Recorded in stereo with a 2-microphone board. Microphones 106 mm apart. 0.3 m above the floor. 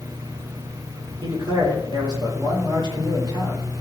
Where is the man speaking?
45° right (ahead or behind), 5.5 m.